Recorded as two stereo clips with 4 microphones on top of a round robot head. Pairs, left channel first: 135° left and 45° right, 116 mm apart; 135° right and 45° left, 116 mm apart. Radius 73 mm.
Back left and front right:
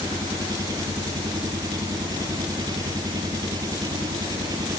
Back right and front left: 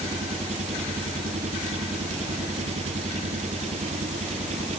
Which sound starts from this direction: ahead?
An engine running, at 0.0 s.